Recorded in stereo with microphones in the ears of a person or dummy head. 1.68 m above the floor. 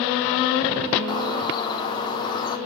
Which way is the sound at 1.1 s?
30° left (ahead or behind).